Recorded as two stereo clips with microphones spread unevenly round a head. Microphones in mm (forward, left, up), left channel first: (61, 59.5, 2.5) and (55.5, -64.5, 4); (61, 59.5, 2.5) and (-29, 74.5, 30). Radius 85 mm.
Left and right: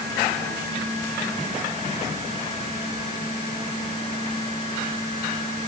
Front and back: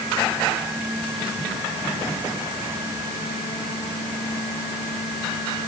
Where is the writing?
No writing in this recording.